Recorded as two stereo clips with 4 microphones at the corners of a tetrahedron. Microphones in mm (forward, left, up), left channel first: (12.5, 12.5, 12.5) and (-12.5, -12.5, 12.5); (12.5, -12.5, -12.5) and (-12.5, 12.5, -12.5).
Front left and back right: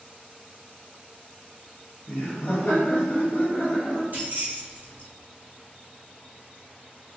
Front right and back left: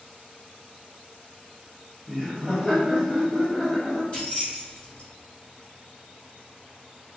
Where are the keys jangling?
100° right, 1.3 m.